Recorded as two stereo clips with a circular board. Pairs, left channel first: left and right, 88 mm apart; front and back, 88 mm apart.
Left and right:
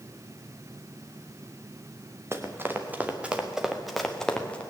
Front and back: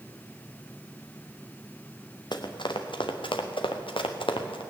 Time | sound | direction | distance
2.3 | running footsteps | 30° right | 1.6 m